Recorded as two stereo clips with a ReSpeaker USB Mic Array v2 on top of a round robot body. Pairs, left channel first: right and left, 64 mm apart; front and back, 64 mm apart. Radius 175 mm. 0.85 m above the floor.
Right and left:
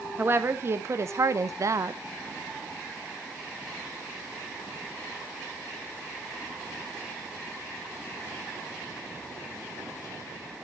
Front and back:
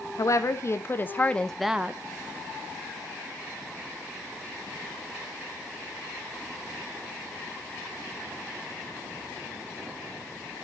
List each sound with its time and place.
0.2 s a woman speaking: 35° left, 1.6 m; by 2.0 s 125° left, 0.8 m